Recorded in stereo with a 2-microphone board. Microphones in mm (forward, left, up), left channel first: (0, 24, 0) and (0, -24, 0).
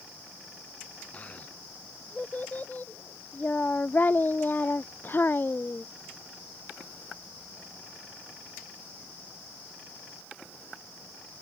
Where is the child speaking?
30° left (ahead or behind); by 5.9 s 45° left (ahead or behind).